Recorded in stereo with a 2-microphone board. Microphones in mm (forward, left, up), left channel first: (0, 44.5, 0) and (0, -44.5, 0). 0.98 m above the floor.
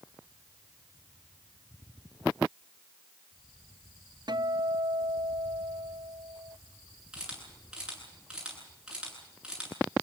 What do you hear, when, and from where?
4.3 s a guitar: 55° right (ahead or behind), 0.6 m
7.1 s a camera shutter: 10° right (ahead or behind), 9 m